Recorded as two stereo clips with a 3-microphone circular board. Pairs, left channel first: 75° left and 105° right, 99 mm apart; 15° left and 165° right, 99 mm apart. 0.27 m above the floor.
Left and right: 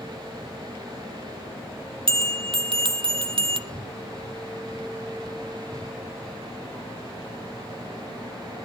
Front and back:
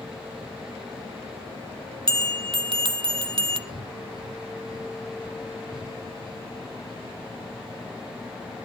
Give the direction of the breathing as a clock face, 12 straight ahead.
7 o'clock.